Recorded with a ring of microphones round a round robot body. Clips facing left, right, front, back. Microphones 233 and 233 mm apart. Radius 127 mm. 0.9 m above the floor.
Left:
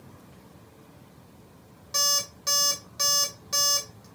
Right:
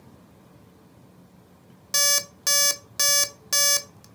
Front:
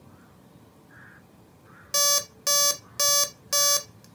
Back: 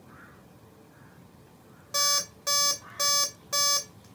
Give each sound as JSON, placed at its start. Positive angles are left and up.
{"t": 1.9, "sound": "an alarm clock", "azimuth_deg": -55, "distance_m": 0.6}